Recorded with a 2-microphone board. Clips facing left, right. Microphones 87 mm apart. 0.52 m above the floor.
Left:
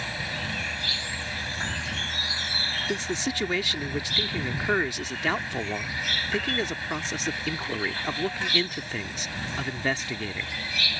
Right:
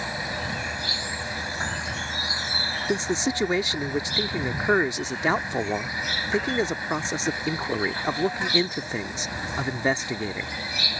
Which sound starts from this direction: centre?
An insect, at 0.0 s.